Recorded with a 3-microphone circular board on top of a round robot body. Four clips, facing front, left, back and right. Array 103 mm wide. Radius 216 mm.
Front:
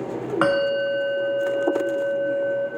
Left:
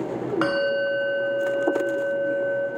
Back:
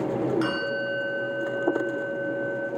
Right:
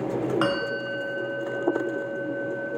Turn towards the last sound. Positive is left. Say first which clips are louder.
# left 4 dB, front 7 dB
turn(degrees=5)